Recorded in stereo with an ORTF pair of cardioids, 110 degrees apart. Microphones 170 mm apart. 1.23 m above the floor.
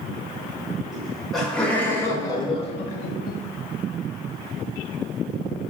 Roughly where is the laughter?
Ahead.